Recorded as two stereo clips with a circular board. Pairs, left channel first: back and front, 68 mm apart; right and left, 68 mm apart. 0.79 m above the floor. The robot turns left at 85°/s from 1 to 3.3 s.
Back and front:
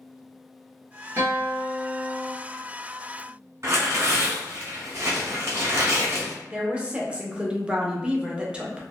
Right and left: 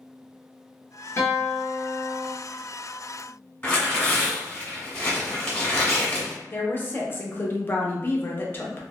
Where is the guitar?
40° right, 1.5 m; by 2.3 s 140° right, 1.5 m.